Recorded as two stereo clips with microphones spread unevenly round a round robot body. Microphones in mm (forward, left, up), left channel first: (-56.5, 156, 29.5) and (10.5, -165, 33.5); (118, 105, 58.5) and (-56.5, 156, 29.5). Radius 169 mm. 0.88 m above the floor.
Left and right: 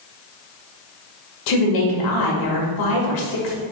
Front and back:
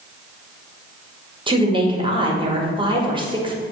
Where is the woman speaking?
105° left, 1.8 m.